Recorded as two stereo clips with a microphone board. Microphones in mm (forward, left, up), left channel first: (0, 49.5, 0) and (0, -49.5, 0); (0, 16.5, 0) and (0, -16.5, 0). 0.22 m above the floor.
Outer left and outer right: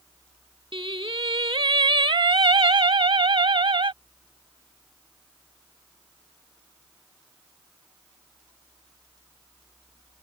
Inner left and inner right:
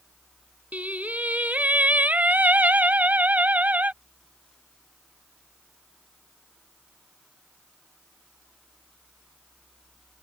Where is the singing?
60° right (ahead or behind).